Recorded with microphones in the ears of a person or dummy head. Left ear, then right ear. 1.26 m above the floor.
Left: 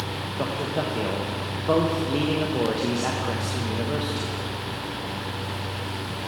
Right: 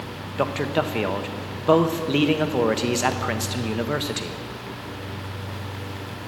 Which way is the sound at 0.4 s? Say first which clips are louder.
Right 5 dB; 50° right (ahead or behind).